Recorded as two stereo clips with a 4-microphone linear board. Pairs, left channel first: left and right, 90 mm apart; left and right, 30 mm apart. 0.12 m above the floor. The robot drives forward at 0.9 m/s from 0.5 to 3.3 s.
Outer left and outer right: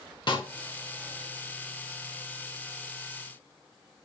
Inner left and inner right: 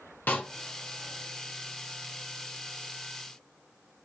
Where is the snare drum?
65° left (ahead or behind), 1.9 m.